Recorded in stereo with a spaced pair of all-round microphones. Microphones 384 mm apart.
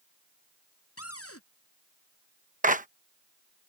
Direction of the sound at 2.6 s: 20° right (ahead or behind).